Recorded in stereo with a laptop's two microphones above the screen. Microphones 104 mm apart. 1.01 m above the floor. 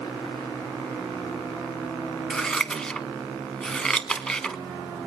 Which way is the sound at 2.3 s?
5° left (ahead or behind).